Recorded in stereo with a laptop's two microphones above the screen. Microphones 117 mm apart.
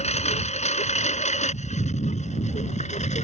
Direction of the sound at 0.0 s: 70° left (ahead or behind).